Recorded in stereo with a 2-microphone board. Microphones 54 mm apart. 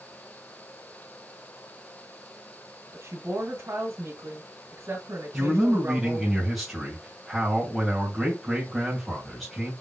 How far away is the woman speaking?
About 1.4 m.